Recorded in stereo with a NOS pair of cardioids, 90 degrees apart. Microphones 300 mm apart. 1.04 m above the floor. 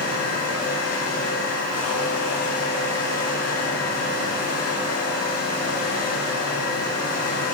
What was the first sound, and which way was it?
A fan, 55° left.